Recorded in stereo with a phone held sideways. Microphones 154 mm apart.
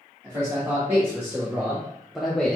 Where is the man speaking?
15° right (ahead or behind), 1.9 m; by 2.6 s 10° left (ahead or behind), 0.7 m.